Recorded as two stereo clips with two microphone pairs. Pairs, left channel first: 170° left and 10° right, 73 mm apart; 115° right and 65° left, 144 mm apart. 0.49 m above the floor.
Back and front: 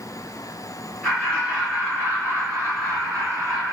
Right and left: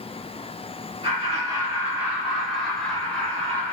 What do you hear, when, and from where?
1.0 s laughter: 70° left, 0.8 m; by 3.7 s 40° right, 1.4 m